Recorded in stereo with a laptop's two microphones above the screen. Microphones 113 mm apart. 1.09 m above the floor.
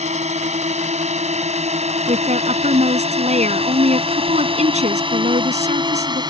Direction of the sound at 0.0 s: 85° right.